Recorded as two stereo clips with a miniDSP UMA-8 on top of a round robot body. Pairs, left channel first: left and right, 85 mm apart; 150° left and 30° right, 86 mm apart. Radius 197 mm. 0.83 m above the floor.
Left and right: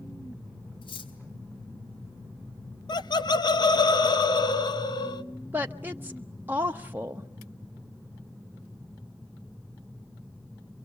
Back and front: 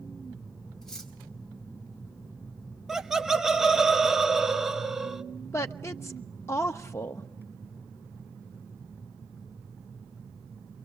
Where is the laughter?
55° left, 1.5 m.